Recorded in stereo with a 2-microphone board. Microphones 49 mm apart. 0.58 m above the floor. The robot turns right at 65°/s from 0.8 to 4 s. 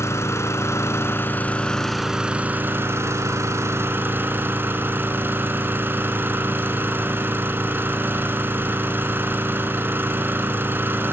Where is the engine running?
105° left, 2.5 m; by 11.1 s 45° right, 2.5 m.